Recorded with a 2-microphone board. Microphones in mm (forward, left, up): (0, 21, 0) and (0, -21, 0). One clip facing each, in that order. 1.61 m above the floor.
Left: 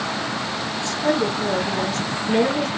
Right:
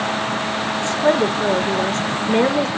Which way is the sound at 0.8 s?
30° right (ahead or behind).